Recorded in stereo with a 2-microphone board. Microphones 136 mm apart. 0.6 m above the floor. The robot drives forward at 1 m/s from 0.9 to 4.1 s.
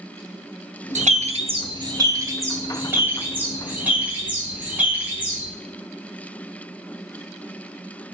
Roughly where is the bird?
Right.